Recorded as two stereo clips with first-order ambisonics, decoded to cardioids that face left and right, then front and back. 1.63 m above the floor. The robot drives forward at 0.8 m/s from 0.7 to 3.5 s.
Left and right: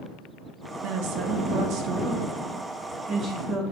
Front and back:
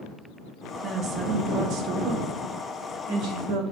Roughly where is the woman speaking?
Behind right.